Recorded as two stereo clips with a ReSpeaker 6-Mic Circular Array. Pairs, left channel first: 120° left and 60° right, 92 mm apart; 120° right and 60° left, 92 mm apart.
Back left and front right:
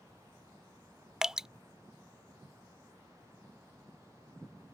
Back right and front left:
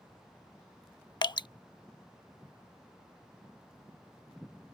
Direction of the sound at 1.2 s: 140° right.